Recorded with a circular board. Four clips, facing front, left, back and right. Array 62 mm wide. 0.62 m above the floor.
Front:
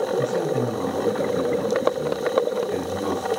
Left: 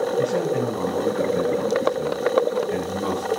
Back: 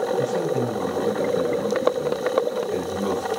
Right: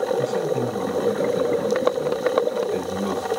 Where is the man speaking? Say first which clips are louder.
Left 1 dB, even; 100° left, 9 m.